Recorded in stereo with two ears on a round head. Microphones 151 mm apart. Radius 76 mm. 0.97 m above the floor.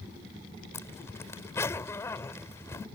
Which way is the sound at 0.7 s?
15° left (ahead or behind).